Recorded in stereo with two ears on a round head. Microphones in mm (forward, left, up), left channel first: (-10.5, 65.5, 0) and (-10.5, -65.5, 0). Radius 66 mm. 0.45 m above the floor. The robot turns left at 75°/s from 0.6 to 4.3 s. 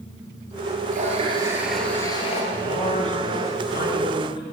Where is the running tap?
120° right, 5 m; by 2.4 s 130° left, 5 m.